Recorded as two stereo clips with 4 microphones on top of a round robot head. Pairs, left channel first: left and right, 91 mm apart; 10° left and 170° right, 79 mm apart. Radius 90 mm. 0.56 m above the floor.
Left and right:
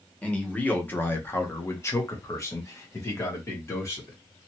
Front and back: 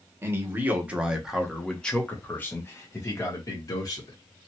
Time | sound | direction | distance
0.2 | a man speaking | 155° left | 1.2 m